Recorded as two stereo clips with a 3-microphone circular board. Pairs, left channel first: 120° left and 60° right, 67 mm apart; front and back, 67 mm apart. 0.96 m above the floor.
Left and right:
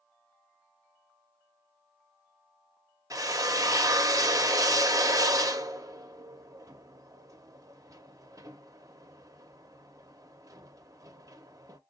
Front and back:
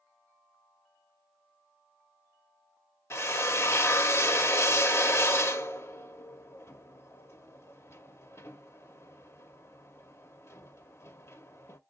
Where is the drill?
40° right, 0.7 m.